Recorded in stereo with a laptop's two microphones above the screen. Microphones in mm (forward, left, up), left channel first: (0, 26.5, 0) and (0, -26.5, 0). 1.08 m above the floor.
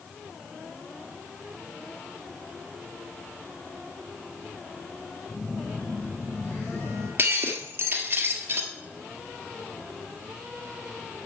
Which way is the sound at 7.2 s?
40° right (ahead or behind).